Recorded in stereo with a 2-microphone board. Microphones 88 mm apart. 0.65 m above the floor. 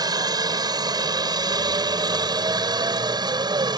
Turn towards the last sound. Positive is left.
turn(degrees=-50)  # may be behind; listen again after turning